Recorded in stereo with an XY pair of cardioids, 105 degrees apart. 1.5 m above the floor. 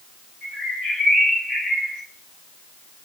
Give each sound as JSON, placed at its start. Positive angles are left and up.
{"t": 0.4, "sound": "a bird", "azimuth_deg": 65, "distance_m": 2.5}